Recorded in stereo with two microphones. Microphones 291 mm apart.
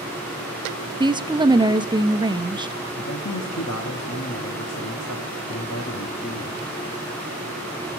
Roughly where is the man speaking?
Left.